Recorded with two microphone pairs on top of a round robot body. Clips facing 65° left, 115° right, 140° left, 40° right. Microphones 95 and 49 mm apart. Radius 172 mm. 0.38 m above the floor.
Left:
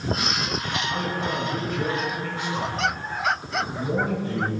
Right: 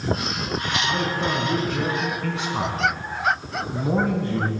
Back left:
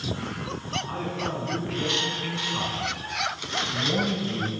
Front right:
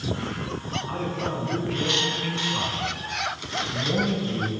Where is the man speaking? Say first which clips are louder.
Right 3 dB, front right 3 dB; 125° right, 5.5 m; by 4.5 s 140° right, 4 m.